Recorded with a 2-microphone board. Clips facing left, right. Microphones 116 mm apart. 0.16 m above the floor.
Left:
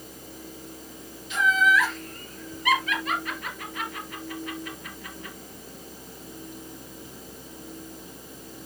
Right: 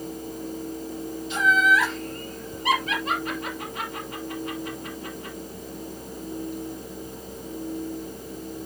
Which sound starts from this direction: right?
Laughter, at 1.3 s.